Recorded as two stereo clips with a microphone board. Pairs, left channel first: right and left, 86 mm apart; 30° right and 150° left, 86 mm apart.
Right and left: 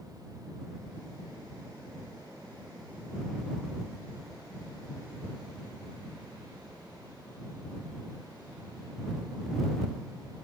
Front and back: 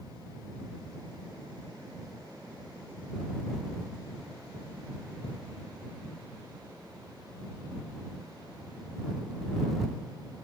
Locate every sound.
Only background noise.